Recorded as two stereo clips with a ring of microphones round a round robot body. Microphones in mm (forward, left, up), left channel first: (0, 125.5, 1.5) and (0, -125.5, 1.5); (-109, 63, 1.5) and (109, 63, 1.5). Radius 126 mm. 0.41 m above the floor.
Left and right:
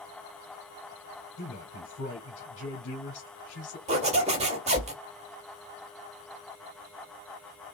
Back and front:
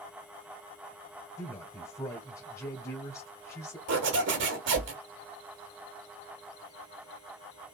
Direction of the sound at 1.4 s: 110° left.